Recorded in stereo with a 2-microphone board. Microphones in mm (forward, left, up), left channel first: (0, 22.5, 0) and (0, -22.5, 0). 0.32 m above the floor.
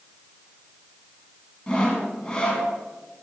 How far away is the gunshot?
I don't hear a gunshot.